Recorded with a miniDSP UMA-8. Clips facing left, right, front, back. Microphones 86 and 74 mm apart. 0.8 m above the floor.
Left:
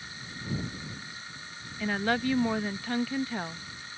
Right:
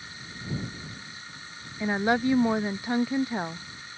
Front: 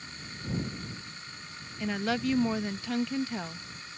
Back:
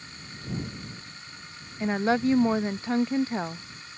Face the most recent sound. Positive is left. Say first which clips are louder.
# right 4 dB, back 6 dB
turn(degrees=-150)